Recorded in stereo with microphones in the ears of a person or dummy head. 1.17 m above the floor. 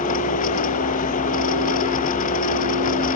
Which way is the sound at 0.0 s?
40° left (ahead or behind).